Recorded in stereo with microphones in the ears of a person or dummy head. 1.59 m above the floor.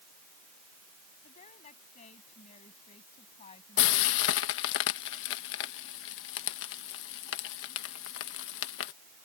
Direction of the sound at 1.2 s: 35° left (ahead or behind).